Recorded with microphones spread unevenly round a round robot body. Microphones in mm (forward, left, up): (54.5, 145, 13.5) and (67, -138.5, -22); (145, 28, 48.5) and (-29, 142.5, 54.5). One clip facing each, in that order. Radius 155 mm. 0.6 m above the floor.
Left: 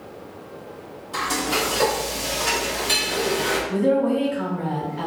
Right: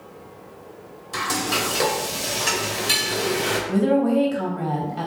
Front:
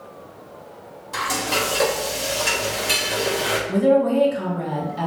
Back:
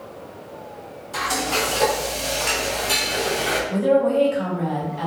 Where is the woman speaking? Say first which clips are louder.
Right 1 dB, front 1 dB; 65° right, 3 m.